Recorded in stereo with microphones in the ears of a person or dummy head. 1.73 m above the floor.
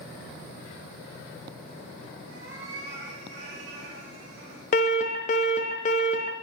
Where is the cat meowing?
70° right (ahead or behind), 3.5 m; by 4.6 s 55° right (ahead or behind), 3 m.